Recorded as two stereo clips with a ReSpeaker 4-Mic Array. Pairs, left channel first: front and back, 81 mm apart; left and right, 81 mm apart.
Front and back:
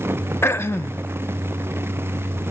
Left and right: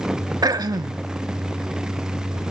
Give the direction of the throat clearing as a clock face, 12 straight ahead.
2 o'clock.